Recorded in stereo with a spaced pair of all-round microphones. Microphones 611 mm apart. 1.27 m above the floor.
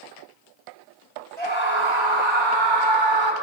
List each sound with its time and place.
1.4 s a scream: 50° right (ahead or behind), 6 m; by 3.3 s 45° right (ahead or behind), 4.5 m